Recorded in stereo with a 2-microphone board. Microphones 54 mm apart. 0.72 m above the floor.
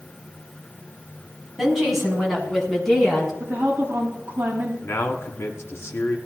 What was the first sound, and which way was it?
A woman speaking, 5° right (ahead or behind).